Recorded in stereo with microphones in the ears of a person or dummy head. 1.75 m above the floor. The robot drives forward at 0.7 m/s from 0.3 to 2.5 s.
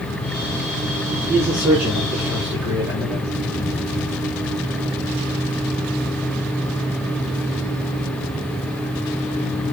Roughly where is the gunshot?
No gunshot in this recording.